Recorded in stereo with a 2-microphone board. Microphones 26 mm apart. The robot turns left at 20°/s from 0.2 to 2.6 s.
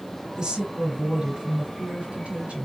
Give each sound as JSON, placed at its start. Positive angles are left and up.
{"t": 0.4, "sound": "a woman speaking", "azimuth_deg": -35, "distance_m": 3.5}